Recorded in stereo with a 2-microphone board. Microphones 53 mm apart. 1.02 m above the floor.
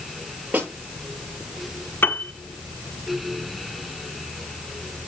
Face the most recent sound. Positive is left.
turn(degrees=45)  # may be behind; listen again after turning